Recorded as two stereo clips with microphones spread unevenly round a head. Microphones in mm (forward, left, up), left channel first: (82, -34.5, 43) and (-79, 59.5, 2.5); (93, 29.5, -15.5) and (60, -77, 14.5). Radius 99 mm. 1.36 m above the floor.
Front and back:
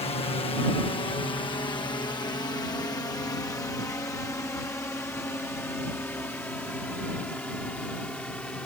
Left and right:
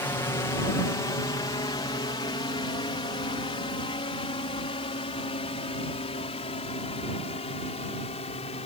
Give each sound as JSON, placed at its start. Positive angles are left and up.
{"t": 0.0, "sound": "a drone", "azimuth_deg": 25}